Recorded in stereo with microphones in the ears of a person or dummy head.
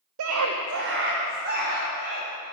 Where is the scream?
85° right, 0.7 m; by 2.3 s 35° right (ahead or behind), 2 m.